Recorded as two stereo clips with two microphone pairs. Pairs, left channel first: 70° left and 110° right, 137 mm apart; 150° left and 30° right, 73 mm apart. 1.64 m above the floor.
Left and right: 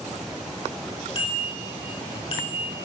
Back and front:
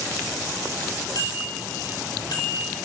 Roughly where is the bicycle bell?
Behind left.